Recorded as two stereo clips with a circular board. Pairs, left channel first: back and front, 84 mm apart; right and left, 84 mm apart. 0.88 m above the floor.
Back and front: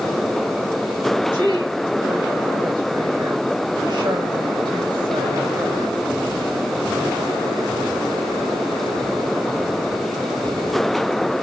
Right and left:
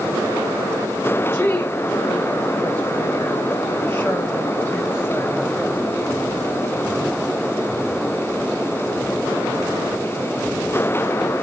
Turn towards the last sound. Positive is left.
turn(degrees=-25)